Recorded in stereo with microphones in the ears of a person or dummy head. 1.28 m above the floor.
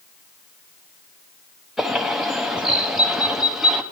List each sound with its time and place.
1.8 s a bird: centre (ahead or behind), 0.7 m